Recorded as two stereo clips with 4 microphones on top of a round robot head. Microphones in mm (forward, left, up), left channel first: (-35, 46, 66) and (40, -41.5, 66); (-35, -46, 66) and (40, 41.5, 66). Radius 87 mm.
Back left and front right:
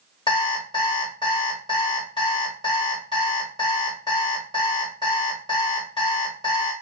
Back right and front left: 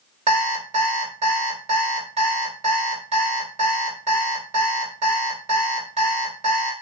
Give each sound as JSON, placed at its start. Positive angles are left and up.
{"t": 0.3, "sound": "an alarm clock", "azimuth_deg": 80, "distance_m": 1.5}